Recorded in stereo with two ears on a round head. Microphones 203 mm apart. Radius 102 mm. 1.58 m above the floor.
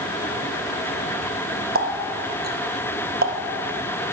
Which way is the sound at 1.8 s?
40° right (ahead or behind).